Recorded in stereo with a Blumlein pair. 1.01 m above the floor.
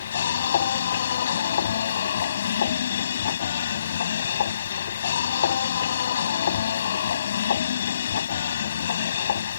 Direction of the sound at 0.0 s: 65° left.